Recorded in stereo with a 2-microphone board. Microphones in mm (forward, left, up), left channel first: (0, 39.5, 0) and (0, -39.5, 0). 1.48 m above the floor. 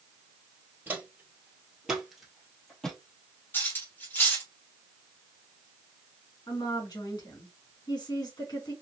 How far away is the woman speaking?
About 1.9 m.